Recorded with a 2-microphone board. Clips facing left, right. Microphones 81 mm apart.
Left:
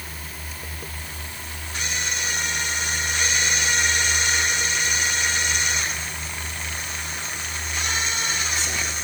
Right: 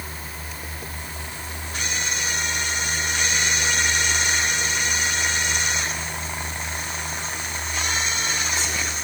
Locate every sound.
Only background noise.